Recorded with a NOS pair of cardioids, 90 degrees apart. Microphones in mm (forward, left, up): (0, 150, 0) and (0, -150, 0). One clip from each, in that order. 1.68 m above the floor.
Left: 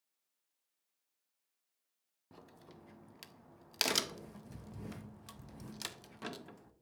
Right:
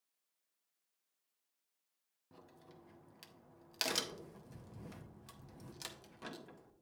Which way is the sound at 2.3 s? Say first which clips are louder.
Left 3 dB; 20° left.